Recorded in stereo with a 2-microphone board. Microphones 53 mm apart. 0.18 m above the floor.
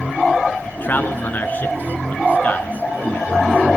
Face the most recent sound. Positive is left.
turn(degrees=30)  # may be behind; listen again after turning